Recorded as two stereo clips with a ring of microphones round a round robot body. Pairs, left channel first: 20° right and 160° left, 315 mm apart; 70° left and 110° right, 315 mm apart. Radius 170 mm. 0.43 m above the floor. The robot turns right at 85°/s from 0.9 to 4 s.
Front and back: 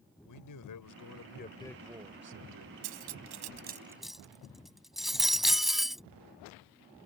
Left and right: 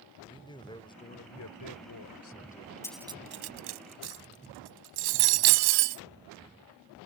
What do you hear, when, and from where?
0.2 s a man speaking: 5° right; by 2.7 s 150° left
2.8 s cutlery clinking: 150° left; by 6.0 s 115° right